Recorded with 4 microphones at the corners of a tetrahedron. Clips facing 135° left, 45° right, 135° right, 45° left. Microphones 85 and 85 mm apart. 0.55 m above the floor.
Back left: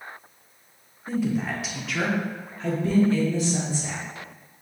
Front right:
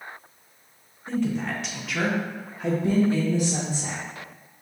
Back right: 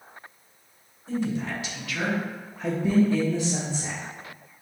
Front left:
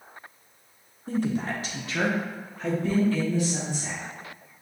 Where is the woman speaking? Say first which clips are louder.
Even, front left 1 dB; 55° left, 1.1 m; by 4.0 s 105° right, 1.1 m.